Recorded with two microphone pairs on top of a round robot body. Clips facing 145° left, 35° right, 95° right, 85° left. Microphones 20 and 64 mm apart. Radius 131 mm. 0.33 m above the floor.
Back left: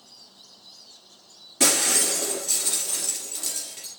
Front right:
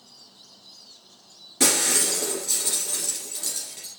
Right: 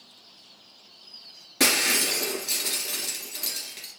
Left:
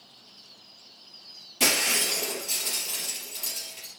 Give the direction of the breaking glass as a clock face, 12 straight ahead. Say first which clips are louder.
Even, right 2 dB; 4 o'clock.